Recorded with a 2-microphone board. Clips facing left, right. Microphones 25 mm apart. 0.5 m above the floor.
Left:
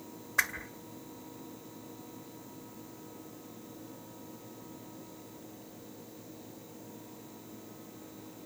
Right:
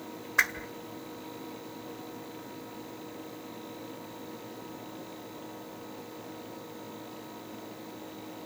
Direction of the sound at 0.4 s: 10° right (ahead or behind).